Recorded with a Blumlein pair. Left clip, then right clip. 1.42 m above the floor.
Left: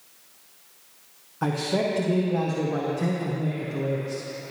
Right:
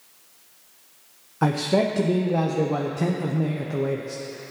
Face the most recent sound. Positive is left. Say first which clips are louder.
# right 4 dB
turn(degrees=-20)